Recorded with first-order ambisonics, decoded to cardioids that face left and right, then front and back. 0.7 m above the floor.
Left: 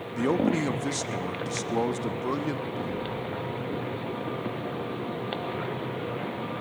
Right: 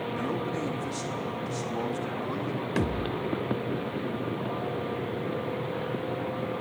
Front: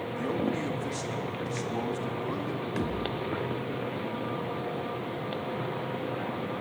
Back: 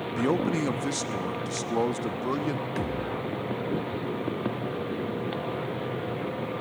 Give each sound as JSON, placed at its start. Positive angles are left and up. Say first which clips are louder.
{"t": 0.2, "sound": "a man speaking", "louder": "left 10 dB, back 5 dB", "azimuth_deg": 135, "distance_m": 0.9}
{"t": 2.8, "sound": "a thud", "louder": "right 2 dB, back 1 dB", "azimuth_deg": -90, "distance_m": 1.3}